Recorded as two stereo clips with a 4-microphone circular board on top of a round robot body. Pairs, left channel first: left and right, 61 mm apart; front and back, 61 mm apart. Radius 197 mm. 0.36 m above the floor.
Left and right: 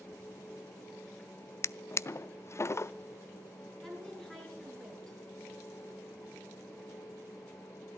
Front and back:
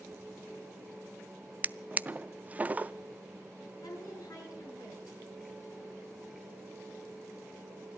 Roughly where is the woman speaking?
Ahead.